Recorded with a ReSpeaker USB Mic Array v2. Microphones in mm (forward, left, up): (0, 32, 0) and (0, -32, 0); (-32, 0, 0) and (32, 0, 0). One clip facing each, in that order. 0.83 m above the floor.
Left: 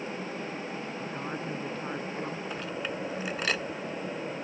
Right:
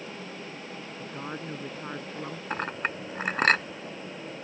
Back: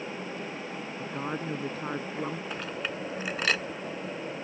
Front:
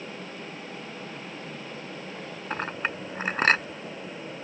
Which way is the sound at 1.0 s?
175° right.